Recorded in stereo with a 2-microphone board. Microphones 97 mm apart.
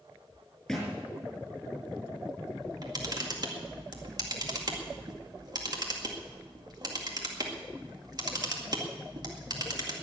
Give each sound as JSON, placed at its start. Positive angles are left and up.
{"t": 0.7, "sound": "a thud", "side_deg": 5, "distance_m": 6.0}
{"t": 2.6, "sound": "a camera shutter", "side_deg": -45, "distance_m": 2.0}